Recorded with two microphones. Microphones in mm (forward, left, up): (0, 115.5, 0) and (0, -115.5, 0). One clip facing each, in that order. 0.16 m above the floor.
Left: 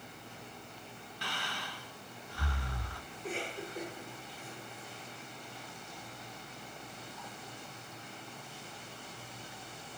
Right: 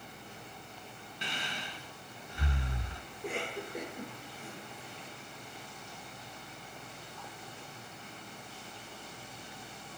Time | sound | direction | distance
1.2 | breathing | 20° right (ahead or behind) | 1.2 m
3.1 | a cough | 65° right (ahead or behind) | 3.5 m